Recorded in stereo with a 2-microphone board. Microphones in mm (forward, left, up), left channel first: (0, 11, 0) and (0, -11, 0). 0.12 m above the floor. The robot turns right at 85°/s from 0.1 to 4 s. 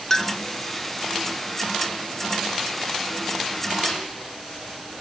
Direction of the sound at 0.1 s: 20° left (ahead or behind).